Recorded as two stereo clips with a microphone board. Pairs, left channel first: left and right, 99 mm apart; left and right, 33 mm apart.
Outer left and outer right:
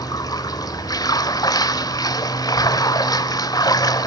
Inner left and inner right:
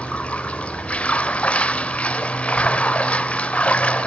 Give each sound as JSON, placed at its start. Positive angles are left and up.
{"t": 0.0, "sound": "running water", "side_deg": 40, "distance_m": 1.2}